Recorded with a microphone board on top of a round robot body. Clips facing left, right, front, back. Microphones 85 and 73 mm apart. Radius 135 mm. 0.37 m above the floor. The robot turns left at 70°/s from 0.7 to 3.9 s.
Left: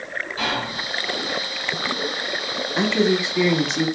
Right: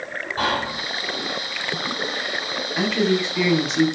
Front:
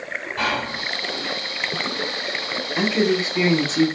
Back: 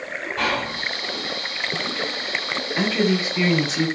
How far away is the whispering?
About 1.4 m.